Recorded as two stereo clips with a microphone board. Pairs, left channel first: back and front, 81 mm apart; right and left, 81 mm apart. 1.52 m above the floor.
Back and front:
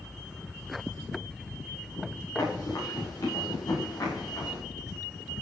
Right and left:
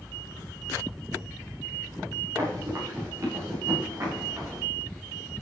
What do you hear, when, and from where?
2.4 s running footsteps: 140° left, 9 m; by 4.6 s 145° left, 10 m